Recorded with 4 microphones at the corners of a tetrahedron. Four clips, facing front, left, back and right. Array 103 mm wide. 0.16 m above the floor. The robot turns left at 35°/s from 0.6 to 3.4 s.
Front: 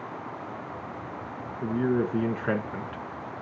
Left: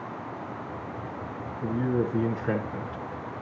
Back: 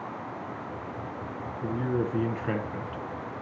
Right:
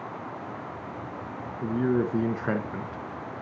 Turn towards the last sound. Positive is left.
turn(degrees=-110)